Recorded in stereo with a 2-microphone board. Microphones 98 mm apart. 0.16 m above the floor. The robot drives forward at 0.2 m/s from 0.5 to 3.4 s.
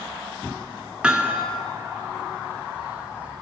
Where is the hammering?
10° right (ahead or behind), 0.6 m.